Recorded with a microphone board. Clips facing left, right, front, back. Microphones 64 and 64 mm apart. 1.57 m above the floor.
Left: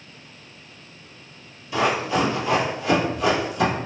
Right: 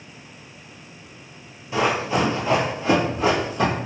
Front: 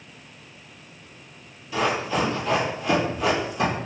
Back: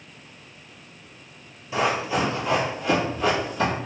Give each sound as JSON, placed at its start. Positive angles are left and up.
{"t": 1.7, "sound": "running footsteps", "azimuth_deg": -130, "distance_m": 1.8}